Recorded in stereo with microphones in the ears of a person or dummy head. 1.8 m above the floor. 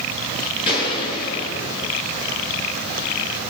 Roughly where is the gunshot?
Left.